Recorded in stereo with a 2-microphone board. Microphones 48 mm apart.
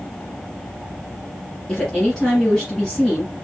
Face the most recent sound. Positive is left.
turn(degrees=10)  # may be behind; listen again after turning